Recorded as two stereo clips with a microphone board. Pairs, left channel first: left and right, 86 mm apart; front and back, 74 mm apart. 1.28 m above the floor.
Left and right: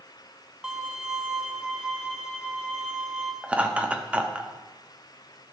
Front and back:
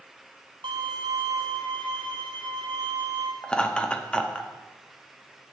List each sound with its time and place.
0.6 s a violin: 170° right, 0.6 m
3.4 s laughter: 45° right, 0.5 m